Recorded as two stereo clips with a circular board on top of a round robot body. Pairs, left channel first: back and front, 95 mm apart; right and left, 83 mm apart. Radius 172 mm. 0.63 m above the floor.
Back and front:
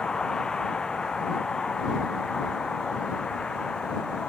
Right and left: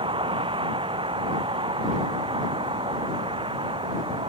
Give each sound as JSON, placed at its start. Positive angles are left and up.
{"t": 0.0, "sound": "a vehicle", "azimuth_deg": 100}